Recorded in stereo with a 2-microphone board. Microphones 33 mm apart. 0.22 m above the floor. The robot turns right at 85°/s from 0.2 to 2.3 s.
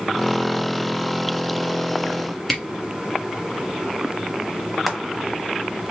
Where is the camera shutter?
Centre (ahead or behind), 1.6 m.